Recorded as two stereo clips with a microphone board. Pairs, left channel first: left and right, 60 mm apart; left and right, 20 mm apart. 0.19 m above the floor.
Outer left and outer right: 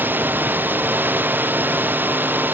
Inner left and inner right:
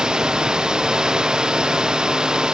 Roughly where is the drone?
Right.